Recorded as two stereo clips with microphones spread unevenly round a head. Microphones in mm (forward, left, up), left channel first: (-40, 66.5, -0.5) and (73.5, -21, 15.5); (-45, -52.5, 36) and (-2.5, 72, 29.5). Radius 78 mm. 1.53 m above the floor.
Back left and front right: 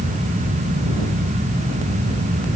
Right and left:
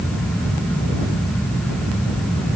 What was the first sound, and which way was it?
Only background noise.